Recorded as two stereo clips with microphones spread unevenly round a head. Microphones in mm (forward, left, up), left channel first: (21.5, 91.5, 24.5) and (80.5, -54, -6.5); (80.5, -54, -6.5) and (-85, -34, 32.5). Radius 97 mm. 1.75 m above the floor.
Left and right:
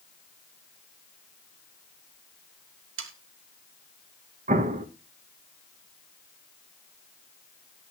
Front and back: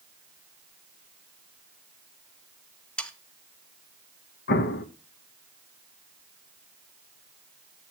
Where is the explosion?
30° right, 1.1 m.